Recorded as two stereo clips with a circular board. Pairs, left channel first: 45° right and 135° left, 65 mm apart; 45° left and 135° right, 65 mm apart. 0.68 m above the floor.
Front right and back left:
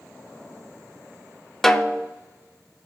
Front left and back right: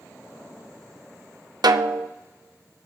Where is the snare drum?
130° right, 0.6 m.